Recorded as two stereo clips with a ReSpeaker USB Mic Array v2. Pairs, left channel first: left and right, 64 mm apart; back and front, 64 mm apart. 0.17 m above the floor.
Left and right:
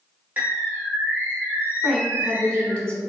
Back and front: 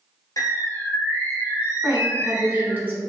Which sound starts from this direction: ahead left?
A woman speaking, at 1.8 s.